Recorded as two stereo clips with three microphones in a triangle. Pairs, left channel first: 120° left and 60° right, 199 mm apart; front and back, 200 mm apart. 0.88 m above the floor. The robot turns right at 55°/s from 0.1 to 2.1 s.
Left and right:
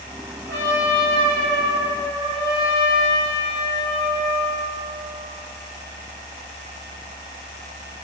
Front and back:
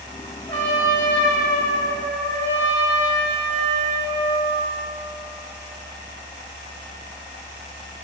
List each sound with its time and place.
0.5 s a trumpet: 65° right, 1.1 m; by 4.6 s 25° left, 1.1 m